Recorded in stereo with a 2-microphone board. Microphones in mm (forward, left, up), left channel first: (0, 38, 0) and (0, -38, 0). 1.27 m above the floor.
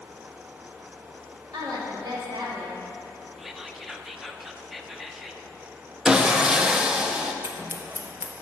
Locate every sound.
1.5 s a woman speaking: 80° right, 2.5 m
3.4 s whispering: 5° right (ahead or behind), 0.7 m
6.0 s sawing: 15° right (ahead or behind), 0.6 m
7.4 s scissors: 40° right (ahead or behind), 0.9 m